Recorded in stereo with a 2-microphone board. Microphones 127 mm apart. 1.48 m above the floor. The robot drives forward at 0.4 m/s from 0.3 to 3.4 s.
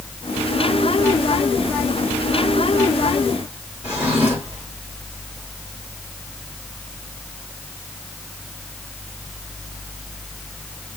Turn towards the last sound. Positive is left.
turn(degrees=-10)  # may be behind; listen again after turning